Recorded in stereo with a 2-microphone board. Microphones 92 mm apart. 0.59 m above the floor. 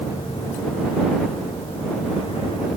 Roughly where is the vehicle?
Left.